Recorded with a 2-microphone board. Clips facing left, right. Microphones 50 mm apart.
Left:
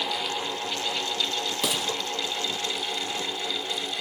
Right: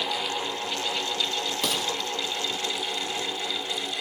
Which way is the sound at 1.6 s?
5° left (ahead or behind).